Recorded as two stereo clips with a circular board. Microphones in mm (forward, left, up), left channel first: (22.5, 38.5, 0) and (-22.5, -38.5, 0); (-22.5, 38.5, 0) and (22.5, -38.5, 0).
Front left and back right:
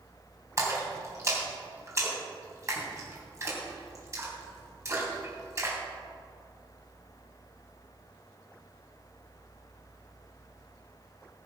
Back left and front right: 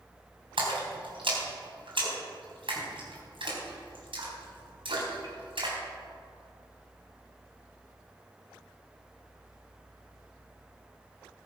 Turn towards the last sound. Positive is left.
turn(degrees=-65)